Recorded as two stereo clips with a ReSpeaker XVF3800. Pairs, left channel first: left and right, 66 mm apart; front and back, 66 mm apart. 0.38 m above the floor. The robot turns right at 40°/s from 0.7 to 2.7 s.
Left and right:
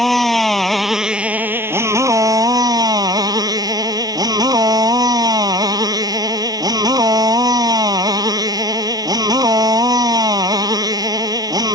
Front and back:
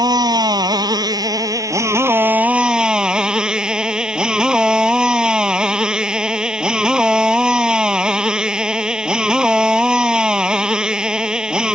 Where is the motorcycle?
Straight behind; by 11.8 s 100° right.